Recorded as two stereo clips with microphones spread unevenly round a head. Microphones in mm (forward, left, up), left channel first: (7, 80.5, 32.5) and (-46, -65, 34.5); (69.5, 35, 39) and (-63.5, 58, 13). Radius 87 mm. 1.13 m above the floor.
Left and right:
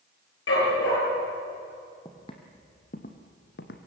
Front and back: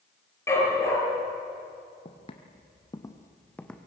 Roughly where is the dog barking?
Ahead left.